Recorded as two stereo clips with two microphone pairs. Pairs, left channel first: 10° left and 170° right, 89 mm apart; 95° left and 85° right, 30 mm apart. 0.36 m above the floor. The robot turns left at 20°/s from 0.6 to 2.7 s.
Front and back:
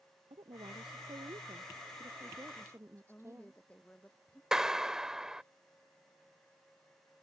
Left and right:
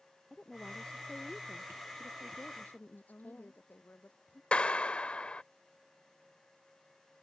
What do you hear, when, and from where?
0.3 s a woman speaking: 170° left; by 3.6 s 130° left
3.0 s a woman speaking: 85° left
4.5 s a clap: 110° left